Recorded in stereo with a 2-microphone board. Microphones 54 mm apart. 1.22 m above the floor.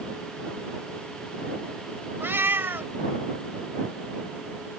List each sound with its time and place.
2.2 s a cat meowing: 45° right (ahead or behind)